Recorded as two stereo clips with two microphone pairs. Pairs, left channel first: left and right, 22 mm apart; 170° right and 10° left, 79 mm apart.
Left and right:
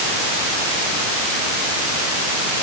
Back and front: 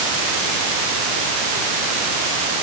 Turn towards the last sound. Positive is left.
No sound to turn to.